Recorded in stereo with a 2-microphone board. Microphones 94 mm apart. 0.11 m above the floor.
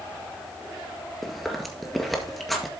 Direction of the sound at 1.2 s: Centre (ahead or behind).